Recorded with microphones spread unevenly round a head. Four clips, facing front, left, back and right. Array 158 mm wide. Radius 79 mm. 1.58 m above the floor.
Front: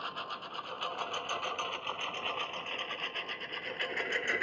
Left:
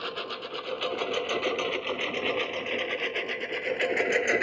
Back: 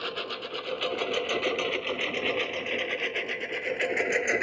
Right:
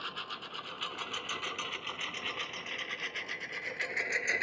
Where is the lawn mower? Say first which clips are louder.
Left 8 dB, back 6 dB; 135° left; by 4.4 s 115° left.